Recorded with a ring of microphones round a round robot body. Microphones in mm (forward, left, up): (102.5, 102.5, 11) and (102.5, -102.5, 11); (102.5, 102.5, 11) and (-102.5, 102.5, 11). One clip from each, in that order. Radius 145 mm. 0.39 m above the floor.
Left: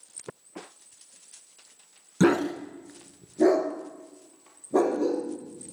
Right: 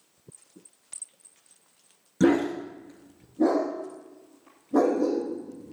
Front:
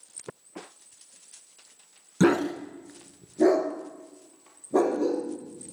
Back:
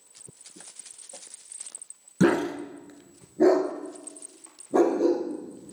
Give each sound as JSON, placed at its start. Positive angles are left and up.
{"t": 2.2, "sound": "a dog barking", "azimuth_deg": 65, "distance_m": 1.0}